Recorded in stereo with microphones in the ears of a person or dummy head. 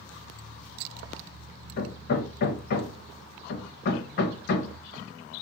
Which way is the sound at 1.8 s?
55° left (ahead or behind).